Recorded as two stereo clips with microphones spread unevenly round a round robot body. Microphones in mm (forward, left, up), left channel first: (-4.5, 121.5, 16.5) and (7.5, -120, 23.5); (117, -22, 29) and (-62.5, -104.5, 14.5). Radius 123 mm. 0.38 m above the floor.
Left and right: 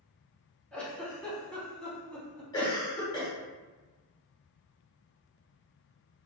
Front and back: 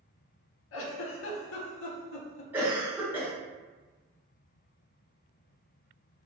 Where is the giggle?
5° left, 0.6 m.